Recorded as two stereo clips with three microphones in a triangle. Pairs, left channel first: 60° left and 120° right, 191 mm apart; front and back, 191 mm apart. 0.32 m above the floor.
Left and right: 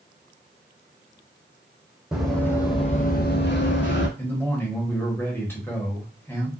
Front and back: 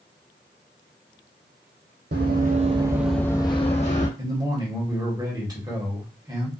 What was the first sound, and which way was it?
Running footsteps, 155° left.